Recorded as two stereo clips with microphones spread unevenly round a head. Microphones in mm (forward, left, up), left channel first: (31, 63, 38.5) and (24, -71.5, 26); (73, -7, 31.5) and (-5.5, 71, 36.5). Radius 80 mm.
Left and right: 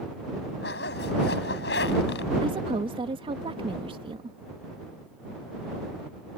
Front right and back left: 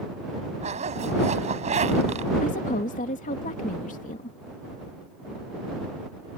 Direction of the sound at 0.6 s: 110° left.